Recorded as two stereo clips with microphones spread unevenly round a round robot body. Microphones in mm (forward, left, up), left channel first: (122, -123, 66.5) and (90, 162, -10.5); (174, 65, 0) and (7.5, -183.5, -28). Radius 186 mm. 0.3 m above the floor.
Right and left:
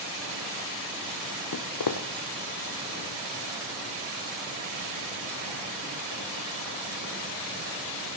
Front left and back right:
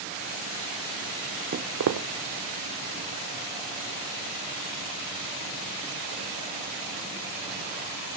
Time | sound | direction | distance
1.5 | footsteps | 60° right | 0.7 m